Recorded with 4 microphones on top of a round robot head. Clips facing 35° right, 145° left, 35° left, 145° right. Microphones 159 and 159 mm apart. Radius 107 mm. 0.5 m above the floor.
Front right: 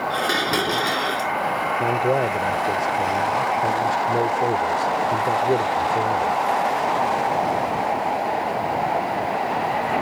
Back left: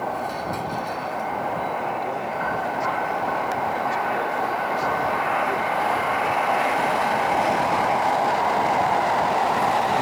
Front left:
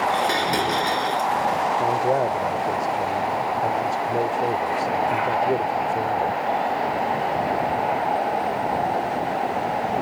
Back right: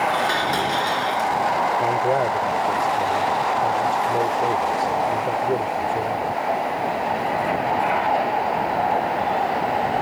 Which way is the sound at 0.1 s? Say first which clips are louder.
Front right 4 dB, even; 40° right.